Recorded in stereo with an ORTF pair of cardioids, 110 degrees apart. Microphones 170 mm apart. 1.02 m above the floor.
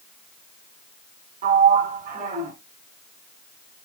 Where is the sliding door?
65° right, 1.4 m.